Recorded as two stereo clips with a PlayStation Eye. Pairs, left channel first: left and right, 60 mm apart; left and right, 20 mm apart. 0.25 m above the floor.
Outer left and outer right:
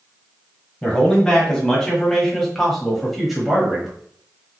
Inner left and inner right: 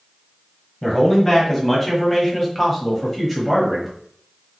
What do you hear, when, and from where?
0.8 s a man speaking: 10° left (ahead or behind), 1.8 m; by 3.9 s 5° right (ahead or behind), 1.2 m